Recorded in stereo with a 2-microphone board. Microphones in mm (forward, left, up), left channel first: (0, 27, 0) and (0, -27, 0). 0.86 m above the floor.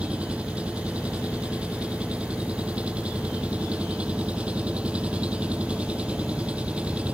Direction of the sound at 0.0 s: 20° right (ahead or behind).